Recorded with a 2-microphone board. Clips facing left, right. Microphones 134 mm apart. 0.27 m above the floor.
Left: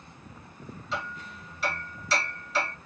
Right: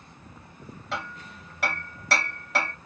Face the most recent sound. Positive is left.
turn(degrees=-60)  # may be behind; listen again after turning